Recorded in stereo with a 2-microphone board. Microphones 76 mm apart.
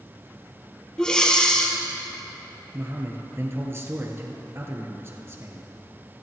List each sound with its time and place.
1.0 s breathing: 10° left (ahead or behind), 1.7 m
2.7 s a man speaking: 35° right (ahead or behind), 2.5 m